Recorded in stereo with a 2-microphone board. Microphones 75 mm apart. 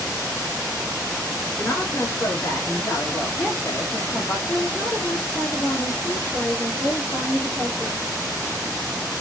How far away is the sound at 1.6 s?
About 1.2 m.